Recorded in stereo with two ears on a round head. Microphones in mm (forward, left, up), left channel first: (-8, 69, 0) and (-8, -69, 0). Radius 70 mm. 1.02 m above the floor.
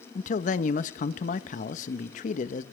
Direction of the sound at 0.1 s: 55° left (ahead or behind).